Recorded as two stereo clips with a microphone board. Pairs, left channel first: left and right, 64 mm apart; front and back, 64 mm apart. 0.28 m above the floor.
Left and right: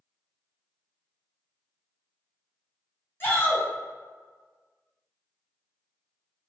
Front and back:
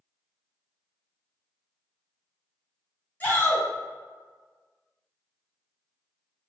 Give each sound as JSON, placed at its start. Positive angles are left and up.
{"t": 3.2, "sound": "a shout", "azimuth_deg": 55, "distance_m": 1.9}